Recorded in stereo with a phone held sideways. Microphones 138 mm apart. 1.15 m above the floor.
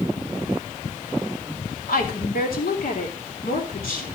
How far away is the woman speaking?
About 3 m.